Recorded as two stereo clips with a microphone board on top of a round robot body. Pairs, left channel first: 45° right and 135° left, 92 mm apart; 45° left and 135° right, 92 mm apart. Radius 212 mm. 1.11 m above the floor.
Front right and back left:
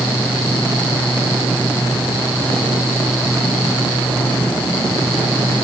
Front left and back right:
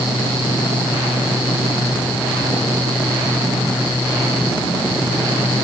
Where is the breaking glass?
I don't hear breaking glass.